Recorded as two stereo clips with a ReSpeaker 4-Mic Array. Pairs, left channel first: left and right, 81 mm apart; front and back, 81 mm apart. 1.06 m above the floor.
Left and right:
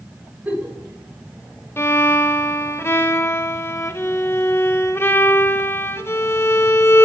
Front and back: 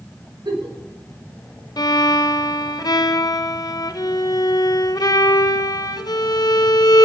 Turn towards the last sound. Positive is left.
turn(degrees=35)